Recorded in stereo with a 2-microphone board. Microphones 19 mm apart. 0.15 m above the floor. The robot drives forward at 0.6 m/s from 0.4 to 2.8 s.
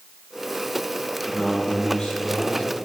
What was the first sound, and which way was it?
A man speaking, 55° left (ahead or behind).